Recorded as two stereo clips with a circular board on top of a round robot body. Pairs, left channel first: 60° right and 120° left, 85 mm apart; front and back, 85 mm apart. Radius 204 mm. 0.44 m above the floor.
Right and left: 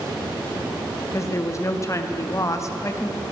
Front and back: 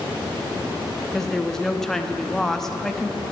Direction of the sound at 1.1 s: 85° right.